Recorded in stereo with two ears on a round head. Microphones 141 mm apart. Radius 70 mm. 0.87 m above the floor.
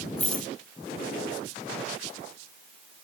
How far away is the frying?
No frying in this recording.